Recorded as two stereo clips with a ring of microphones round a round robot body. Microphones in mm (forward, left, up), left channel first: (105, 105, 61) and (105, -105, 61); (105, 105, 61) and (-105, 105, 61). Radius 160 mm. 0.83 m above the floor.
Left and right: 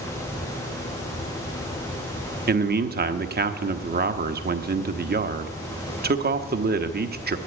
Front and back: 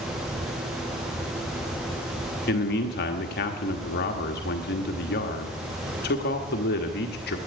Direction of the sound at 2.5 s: 45° right.